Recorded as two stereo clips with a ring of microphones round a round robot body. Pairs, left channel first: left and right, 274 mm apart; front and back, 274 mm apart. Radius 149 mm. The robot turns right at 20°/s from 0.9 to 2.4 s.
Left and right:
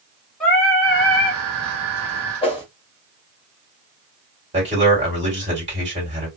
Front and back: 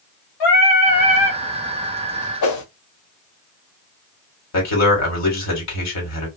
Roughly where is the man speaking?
Ahead.